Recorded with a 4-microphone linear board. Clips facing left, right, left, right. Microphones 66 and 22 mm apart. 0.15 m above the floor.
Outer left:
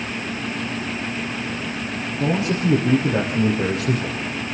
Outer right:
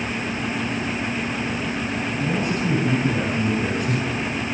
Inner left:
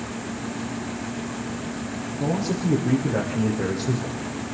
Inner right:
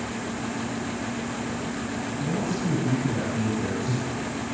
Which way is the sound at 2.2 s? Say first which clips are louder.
Outer left 4 dB, inner left 4 dB; 75° left (ahead or behind).